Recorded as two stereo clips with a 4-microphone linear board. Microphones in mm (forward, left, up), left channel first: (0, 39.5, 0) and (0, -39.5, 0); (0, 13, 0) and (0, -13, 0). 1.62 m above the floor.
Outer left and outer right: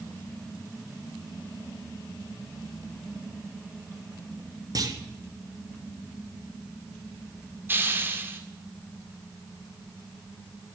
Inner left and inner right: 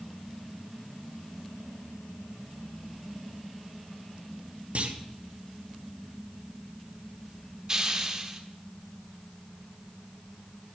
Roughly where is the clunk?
Right.